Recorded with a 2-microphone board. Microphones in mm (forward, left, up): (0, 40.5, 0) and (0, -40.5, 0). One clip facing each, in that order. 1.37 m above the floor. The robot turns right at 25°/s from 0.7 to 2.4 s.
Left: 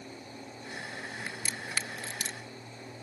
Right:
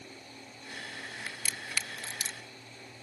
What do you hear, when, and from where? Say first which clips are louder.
1.3 s a crack: left 2 dB; 20° left (ahead or behind); by 2.4 s 50° left (ahead or behind)